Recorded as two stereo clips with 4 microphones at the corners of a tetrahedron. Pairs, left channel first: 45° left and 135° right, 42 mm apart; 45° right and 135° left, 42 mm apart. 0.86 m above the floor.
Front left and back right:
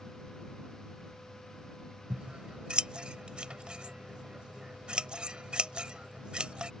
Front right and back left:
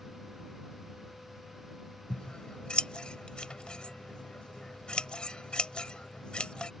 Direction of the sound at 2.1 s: 95° right.